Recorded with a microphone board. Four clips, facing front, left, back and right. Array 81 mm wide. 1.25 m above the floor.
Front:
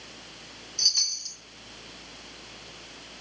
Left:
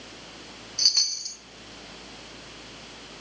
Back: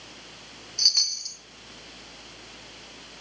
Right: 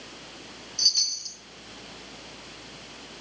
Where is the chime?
130° left, 1.5 m.